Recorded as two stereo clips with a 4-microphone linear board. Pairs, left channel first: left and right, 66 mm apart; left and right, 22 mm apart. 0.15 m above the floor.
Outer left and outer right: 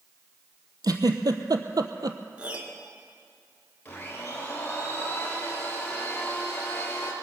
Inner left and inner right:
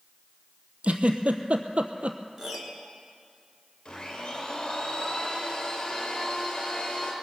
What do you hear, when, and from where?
0.8 s a giggle: 70° right (ahead or behind), 1.0 m
2.4 s a piano: 20° right (ahead or behind), 1.6 m
3.9 s a blender: 25° left (ahead or behind), 3.5 m